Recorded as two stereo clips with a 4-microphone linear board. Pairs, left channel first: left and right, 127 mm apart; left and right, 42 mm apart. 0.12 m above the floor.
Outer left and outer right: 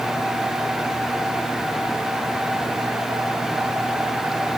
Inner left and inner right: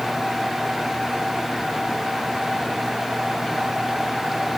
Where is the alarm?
No alarm in this recording.